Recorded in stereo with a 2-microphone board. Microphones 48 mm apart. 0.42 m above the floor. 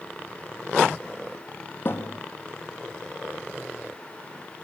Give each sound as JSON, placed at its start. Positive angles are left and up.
{"t": 1.9, "sound": "a thud", "side_deg": 50, "distance_m": 3.5}